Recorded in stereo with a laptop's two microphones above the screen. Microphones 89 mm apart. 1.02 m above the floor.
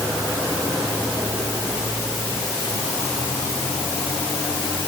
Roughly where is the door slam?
I don't hear a door slam.